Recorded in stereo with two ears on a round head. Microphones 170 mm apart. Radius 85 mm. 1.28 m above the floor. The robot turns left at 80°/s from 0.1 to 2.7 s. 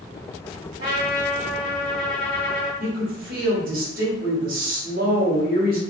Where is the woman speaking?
50° right (ahead or behind), 0.9 m.